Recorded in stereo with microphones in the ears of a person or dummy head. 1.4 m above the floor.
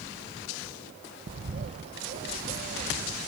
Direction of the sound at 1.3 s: 35° right (ahead or behind).